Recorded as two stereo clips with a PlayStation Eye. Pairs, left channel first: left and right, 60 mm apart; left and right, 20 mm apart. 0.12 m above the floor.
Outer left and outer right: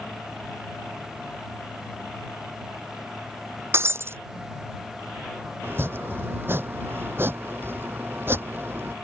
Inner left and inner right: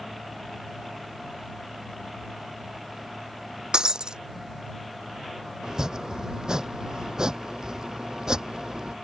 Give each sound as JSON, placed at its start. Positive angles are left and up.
{"t": 3.7, "sound": "breaking glass", "side_deg": -45}
{"t": 5.6, "sound": "chopping", "side_deg": -40}